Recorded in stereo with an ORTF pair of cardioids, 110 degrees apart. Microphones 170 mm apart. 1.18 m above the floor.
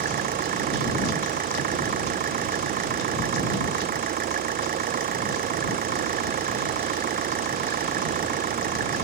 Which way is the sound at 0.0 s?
60° right.